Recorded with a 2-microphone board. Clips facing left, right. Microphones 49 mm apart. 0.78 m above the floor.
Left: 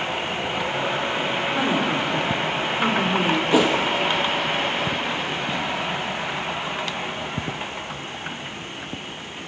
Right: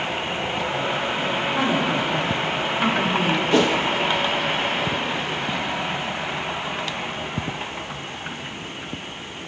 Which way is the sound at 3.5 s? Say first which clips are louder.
Even; 10° left (ahead or behind).